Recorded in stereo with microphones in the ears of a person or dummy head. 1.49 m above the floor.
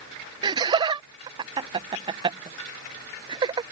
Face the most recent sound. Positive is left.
turn(degrees=-25)  # may be behind; listen again after turning